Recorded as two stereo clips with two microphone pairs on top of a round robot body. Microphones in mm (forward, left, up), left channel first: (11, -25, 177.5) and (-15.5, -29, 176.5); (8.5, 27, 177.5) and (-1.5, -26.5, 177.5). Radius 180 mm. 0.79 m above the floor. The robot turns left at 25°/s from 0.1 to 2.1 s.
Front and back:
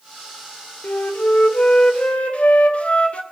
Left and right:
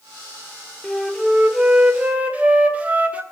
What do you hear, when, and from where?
0.8 s a flute: 5° right, 2 m; by 3.2 s 35° right, 2 m